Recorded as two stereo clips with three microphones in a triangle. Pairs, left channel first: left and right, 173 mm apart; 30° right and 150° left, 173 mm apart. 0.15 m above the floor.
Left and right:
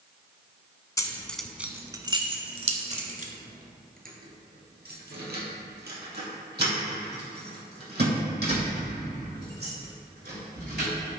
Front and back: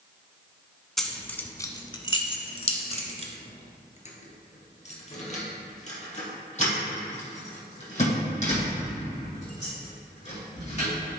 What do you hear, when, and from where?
1.0 s keys jangling: 60° left, 1.0 m; by 10.9 s 80° right, 6.5 m